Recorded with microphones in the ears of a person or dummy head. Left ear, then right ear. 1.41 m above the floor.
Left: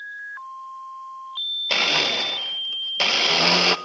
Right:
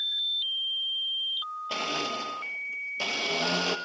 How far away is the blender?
About 0.9 m.